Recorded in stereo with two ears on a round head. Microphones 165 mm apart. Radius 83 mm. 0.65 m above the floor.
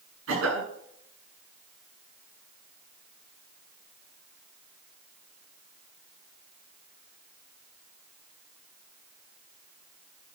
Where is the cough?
85° right, 8 m.